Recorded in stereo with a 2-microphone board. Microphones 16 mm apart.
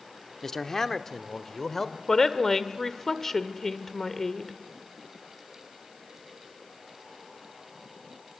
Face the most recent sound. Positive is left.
turn(degrees=25)  # may be behind; listen again after turning